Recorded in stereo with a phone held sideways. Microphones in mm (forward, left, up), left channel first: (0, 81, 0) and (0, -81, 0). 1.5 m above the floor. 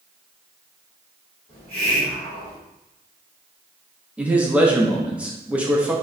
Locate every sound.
1.5 s a hiss: 35° left (ahead or behind), 1.3 m
4.2 s a man speaking: 10° right (ahead or behind), 0.6 m